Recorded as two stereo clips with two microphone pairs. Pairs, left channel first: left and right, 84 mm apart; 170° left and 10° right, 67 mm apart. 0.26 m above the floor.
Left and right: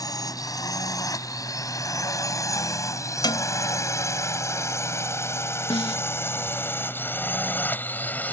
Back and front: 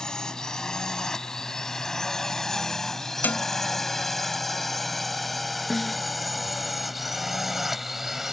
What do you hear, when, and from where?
0.0 s a drone: 95° left; by 8.3 s 65° left
3.2 s a cowbell: 110° left
5.7 s a snare drum: 85° left